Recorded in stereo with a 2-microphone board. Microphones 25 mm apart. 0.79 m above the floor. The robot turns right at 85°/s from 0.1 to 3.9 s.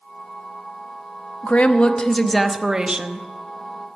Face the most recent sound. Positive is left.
turn(degrees=-55)